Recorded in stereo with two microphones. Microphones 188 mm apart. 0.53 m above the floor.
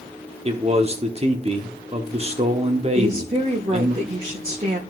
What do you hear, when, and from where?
0.5 s a man speaking: 35° right (ahead or behind), 0.9 m
3.0 s a woman speaking: 35° right (ahead or behind), 1.1 m